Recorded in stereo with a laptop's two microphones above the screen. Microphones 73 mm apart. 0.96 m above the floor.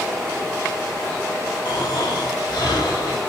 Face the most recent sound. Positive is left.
turn(degrees=65)  # may be behind; listen again after turning